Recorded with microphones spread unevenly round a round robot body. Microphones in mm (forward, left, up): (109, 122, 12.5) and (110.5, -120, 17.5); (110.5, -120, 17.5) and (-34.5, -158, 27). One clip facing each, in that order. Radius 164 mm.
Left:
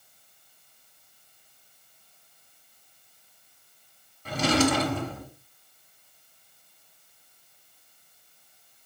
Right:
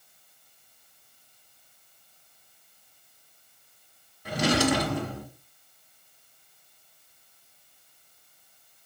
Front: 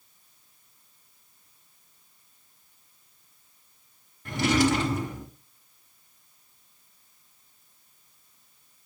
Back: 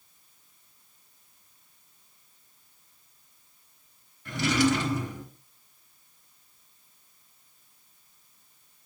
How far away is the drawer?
About 1.6 m.